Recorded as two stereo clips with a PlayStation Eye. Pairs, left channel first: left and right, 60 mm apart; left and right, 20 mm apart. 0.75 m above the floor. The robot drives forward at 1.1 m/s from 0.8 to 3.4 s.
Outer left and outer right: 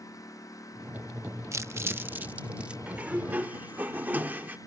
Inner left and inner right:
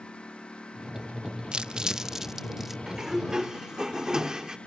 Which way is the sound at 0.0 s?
70° left (ahead or behind).